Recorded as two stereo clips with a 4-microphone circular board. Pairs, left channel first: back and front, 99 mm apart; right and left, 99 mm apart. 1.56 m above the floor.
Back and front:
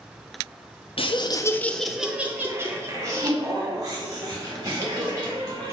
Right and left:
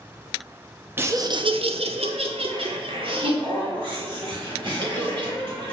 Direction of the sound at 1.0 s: 155° left.